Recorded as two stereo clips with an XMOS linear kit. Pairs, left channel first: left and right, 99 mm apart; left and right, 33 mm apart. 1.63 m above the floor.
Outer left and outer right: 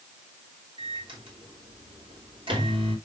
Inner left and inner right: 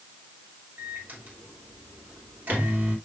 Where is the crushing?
No crushing in this recording.